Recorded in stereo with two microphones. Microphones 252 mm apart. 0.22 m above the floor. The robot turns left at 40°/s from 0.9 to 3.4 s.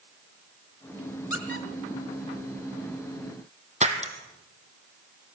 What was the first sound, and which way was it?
A squeak, 60° left (ahead or behind).